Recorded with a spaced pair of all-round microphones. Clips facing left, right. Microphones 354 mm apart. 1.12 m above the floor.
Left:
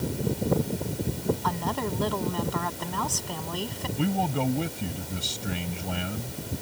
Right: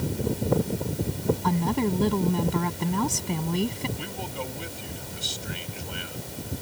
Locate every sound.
1.4 s a woman speaking: 35° right (ahead or behind)
4.0 s a man speaking: 70° left (ahead or behind)